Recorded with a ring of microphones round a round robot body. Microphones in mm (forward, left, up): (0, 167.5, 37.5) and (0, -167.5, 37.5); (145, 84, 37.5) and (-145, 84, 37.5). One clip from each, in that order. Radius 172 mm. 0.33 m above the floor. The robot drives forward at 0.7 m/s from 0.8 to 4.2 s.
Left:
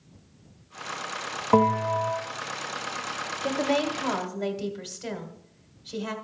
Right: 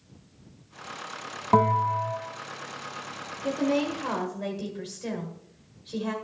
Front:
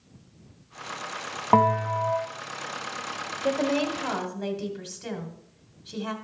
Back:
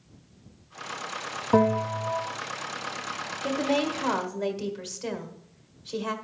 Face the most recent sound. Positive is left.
turn(degrees=135)